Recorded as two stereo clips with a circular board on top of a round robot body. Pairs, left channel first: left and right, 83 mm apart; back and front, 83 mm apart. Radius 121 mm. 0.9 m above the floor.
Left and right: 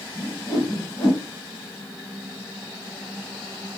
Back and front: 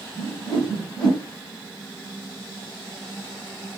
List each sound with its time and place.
0.2 s a whoosh: 145° left, 0.8 m